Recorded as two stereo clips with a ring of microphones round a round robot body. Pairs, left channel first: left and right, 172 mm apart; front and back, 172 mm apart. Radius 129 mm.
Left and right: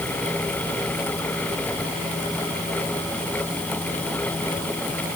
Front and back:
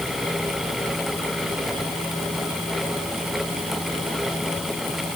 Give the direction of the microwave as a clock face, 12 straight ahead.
I don't hear a microwave.